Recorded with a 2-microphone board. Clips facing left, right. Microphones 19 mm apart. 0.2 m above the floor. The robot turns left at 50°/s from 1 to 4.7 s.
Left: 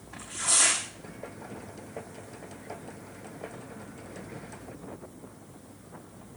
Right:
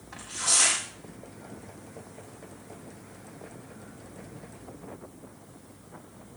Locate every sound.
0.1 s tearing paper: 70° right (ahead or behind), 6.5 m